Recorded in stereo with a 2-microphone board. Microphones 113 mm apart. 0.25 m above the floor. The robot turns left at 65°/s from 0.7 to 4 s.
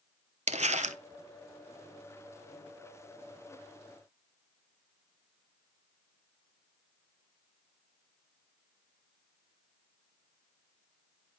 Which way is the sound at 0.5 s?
75° right (ahead or behind).